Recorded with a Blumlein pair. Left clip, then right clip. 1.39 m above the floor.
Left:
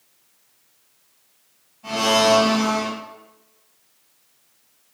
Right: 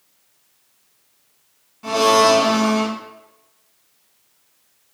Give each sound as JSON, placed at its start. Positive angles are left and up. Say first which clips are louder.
{"t": 1.8, "sound": "a blender", "louder": "right 4 dB", "azimuth_deg": -50, "distance_m": 1.6}